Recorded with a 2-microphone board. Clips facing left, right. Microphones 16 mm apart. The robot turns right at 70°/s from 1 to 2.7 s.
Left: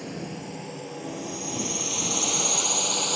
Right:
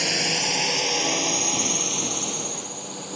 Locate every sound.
0.0 s a drone: 65° right (ahead or behind); by 3.2 s 40° left (ahead or behind)